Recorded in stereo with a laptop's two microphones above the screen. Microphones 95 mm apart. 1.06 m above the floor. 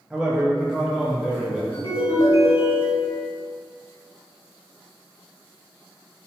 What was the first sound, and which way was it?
A man speaking, 10° right (ahead or behind).